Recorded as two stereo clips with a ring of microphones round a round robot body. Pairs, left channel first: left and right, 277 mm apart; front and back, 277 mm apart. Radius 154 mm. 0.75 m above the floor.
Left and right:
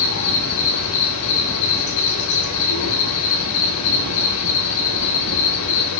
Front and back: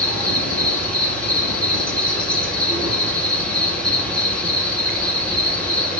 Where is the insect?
85° left, 5 m.